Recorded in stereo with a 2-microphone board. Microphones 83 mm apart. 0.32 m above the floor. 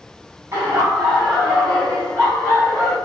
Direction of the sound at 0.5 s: 25° right (ahead or behind).